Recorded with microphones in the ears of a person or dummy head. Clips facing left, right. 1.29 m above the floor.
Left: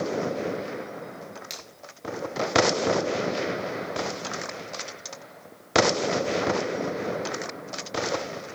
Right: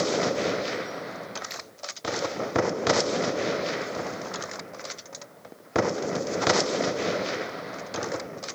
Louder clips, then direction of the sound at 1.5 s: Right 2 dB; 20° left (ahead or behind).